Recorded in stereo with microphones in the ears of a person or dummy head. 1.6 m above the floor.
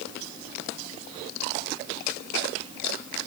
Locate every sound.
Only background noise.